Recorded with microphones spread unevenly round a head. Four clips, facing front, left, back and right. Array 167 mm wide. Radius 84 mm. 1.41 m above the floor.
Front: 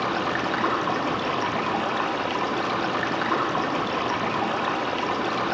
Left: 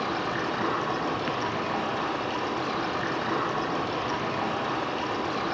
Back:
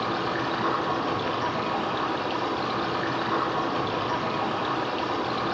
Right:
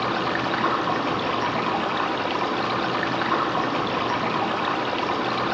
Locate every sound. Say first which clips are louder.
0.0 s running water: right 4 dB, front 2 dB; 65° right, 0.8 m